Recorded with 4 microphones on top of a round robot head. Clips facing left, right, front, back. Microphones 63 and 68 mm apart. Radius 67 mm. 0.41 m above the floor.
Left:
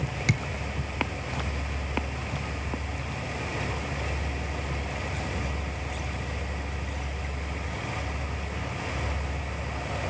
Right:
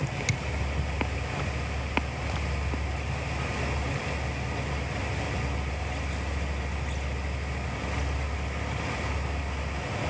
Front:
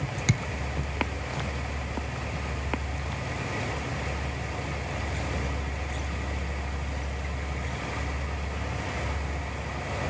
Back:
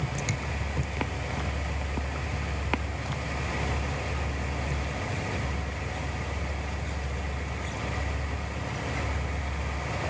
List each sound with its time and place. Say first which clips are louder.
0.3 s a thud: left 4 dB, front 4 dB; 35° left, 2.5 m